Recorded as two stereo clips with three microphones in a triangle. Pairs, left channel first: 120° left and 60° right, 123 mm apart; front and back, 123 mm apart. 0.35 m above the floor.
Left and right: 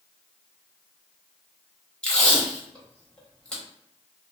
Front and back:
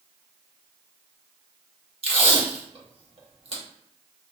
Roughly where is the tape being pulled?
Behind.